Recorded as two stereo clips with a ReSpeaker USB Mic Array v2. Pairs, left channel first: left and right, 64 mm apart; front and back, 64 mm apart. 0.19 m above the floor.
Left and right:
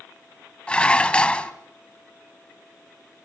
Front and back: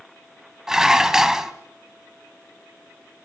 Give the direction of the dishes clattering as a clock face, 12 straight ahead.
8 o'clock.